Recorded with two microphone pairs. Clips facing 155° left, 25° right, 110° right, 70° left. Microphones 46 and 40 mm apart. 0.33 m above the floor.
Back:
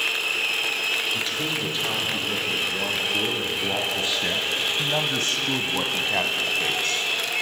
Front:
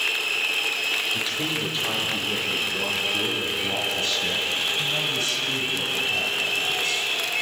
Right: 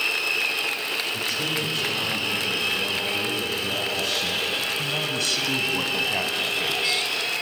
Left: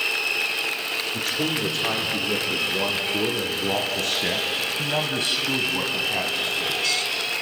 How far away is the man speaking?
About 4.5 m.